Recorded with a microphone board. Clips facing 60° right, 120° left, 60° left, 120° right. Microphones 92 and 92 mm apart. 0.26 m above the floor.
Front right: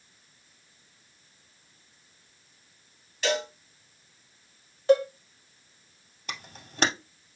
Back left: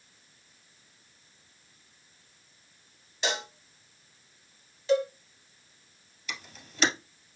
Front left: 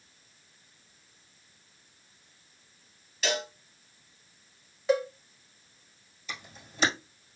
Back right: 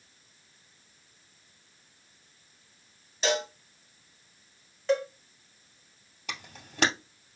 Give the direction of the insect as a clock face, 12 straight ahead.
I don't hear an insect.